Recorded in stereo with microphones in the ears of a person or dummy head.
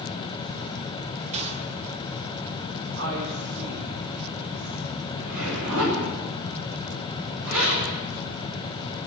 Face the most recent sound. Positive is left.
turn(degrees=-80)